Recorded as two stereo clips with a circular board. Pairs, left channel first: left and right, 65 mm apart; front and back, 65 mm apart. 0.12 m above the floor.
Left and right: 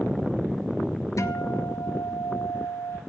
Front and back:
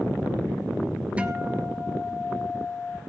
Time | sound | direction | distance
1.2 | a guitar | 110° left | 0.8 m